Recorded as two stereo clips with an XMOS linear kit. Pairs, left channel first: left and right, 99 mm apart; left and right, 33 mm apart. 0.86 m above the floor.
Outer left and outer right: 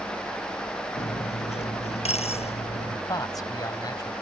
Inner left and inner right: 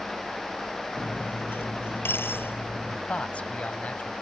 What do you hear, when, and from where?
1.0 s cutlery clinking: 85° left
3.1 s a man speaking: 35° left (ahead or behind)